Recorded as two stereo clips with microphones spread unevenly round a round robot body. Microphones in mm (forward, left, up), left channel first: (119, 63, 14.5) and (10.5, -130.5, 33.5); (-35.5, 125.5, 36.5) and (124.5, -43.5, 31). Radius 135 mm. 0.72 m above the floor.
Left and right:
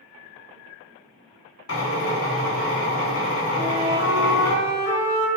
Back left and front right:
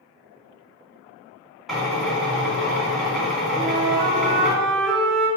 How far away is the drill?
About 0.9 m.